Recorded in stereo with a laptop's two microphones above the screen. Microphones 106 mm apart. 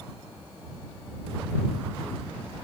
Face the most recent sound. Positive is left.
No sound to turn to.